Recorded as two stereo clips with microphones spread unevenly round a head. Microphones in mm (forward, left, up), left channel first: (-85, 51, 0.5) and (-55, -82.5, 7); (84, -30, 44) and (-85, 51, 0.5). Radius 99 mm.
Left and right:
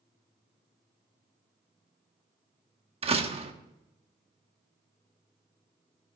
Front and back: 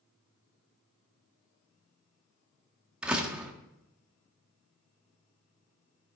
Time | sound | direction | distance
3.0 | a door slam | 125° right | 1.5 m